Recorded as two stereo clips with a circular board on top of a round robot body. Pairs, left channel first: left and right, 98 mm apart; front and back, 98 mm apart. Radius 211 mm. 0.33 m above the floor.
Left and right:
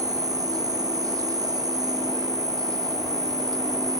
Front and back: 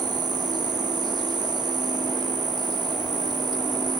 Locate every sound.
0.0 s an insect: 140° right, 2 m